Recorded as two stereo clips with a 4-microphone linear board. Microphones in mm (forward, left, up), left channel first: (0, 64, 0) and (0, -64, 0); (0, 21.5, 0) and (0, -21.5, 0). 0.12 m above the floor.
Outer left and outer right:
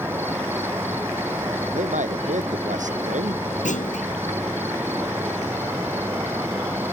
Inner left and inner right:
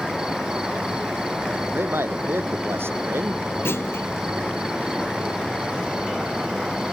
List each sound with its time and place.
0.0 s an insect: 15° right (ahead or behind)
1.7 s a man speaking: 75° right (ahead or behind)
3.6 s a clunk: 75° left (ahead or behind)